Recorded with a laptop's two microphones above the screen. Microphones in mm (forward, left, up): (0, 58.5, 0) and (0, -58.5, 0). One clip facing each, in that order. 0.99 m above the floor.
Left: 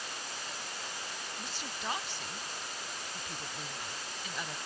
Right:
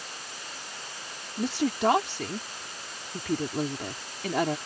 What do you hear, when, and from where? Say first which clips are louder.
1.4 s a woman speaking: right 21 dB; 80° right